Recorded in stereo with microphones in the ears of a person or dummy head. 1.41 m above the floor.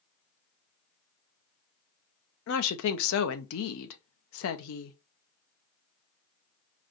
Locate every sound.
2.5 s a woman speaking: 70° left (ahead or behind), 0.7 m